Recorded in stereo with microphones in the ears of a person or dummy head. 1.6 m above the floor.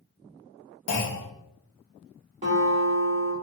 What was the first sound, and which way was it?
A clunk, 80° left.